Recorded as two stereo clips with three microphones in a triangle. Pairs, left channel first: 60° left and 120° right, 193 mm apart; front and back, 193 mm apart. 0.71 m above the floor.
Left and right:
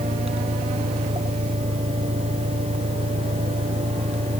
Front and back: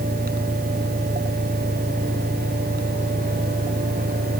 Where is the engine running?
120° right.